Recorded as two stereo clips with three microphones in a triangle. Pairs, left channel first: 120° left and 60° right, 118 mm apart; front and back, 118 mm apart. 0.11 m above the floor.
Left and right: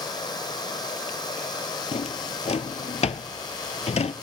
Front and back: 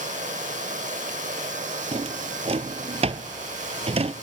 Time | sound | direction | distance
0.0 | running water | 175° left | 1.8 m
1.9 | a drawer | 145° left | 0.5 m